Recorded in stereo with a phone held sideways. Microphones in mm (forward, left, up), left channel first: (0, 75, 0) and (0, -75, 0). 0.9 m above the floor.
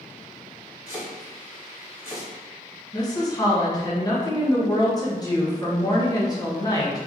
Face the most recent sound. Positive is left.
turn(degrees=25)  # may be behind; listen again after turning